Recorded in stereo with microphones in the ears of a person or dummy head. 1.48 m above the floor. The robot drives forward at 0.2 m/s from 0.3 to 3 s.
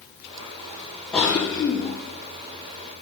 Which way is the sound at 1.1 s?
10° left (ahead or behind).